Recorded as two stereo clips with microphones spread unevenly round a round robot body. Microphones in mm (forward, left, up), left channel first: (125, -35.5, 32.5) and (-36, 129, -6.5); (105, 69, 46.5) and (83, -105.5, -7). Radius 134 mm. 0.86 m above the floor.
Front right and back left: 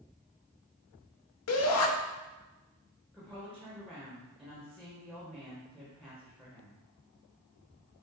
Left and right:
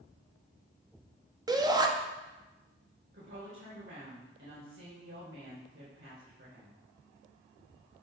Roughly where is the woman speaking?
Behind right.